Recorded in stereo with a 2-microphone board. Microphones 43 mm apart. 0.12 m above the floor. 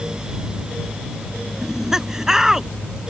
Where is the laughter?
10° right (ahead or behind).